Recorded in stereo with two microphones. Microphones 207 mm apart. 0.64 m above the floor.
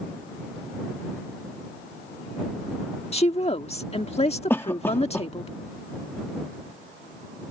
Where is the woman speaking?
30° left (ahead or behind).